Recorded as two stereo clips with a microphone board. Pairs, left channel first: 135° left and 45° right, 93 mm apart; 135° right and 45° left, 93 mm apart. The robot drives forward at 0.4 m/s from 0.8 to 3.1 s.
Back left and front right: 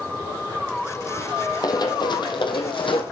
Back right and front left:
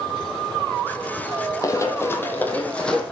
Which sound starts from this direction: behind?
Running footsteps, at 1.6 s.